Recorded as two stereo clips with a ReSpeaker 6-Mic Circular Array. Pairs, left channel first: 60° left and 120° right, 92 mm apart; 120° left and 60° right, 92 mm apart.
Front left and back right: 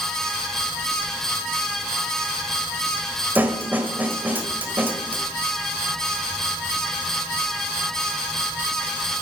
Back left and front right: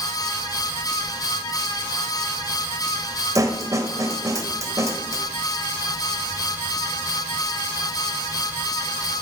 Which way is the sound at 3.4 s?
65° right.